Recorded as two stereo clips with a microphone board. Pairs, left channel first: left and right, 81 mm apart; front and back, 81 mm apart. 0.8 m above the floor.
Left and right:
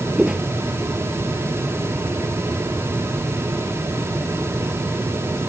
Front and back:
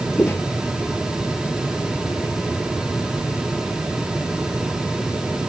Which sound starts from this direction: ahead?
Footsteps, at 0.2 s.